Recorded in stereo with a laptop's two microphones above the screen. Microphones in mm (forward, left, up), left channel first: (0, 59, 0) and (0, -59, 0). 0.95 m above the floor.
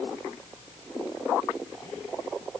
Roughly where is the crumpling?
I don't hear crumpling.